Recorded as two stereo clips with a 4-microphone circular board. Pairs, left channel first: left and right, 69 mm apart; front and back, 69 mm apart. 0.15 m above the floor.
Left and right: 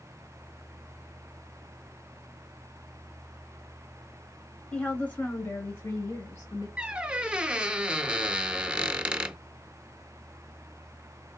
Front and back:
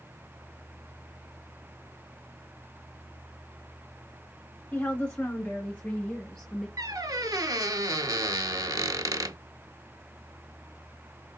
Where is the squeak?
165° right, 0.6 m.